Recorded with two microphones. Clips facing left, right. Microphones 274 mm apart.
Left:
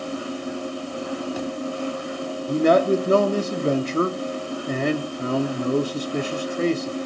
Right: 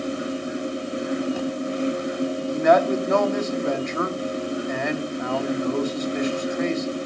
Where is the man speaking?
35° left (ahead or behind), 0.9 m.